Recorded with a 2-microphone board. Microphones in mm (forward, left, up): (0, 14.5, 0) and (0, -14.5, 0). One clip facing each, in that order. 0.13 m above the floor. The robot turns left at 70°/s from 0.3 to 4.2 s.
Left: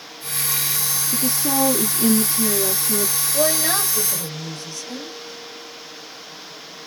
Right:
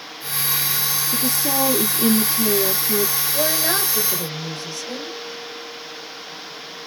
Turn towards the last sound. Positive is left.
turn(degrees=-45)